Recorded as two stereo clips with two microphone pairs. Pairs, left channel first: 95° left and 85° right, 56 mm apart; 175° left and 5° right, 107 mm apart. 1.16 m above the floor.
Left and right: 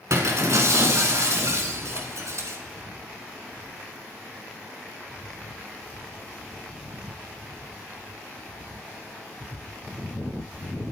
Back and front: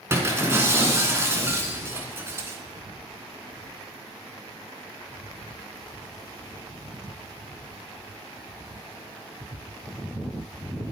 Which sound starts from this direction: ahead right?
Breaking glass, at 0.1 s.